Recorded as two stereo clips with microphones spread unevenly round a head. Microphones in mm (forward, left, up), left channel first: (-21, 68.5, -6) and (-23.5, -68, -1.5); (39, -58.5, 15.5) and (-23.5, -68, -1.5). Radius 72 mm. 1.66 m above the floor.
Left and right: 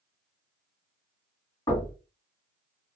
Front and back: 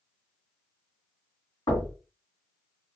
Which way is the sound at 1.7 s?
20° left.